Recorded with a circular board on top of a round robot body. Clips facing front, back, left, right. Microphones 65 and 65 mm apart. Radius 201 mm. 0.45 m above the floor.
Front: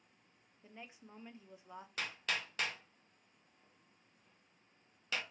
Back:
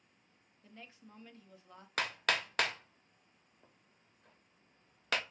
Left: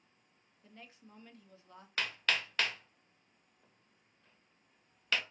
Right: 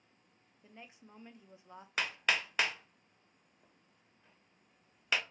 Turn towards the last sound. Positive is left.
turn(degrees=-165)